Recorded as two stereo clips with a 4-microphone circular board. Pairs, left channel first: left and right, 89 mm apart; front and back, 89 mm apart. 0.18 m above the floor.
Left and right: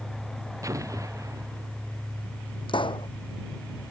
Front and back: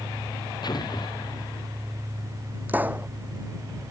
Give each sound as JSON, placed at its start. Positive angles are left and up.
{"t": 0.6, "sound": "an explosion", "azimuth_deg": -40}
{"t": 2.7, "sound": "a pop", "azimuth_deg": 110}